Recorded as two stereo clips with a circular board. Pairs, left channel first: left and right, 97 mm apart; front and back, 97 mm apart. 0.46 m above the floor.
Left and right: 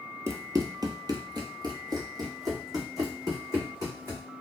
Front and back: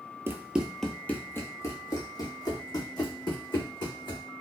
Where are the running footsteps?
130° right, 0.5 m; by 4.2 s 35° right, 2.0 m.